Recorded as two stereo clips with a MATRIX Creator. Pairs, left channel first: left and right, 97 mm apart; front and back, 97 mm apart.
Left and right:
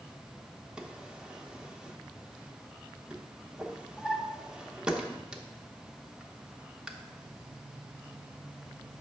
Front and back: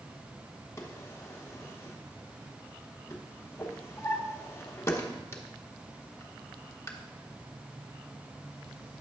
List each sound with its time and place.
0.8 s a drawer: 15° right, 0.8 m